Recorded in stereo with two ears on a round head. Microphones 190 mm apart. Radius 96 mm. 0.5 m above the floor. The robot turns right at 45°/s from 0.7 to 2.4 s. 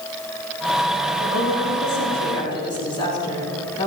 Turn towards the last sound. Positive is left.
turn(degrees=155)